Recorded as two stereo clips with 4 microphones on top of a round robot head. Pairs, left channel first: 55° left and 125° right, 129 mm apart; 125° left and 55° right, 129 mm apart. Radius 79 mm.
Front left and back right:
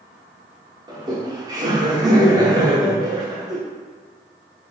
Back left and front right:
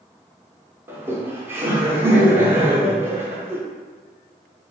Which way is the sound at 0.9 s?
110° right.